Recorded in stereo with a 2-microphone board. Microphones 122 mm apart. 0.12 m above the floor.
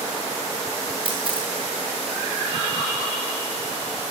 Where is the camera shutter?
45° right (ahead or behind), 5.5 m.